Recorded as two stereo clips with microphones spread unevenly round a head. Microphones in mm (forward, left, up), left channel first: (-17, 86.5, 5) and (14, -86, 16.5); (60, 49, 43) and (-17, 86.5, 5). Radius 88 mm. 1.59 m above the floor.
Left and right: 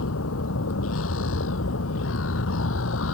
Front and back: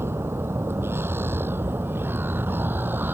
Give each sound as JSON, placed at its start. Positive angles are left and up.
{"t": 0.0, "sound": "a vehicle", "azimuth_deg": 90}